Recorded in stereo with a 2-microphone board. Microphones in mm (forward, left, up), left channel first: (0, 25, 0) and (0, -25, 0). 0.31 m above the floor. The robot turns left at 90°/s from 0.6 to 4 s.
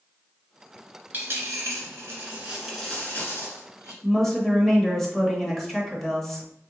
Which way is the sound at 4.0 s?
5° left (ahead or behind).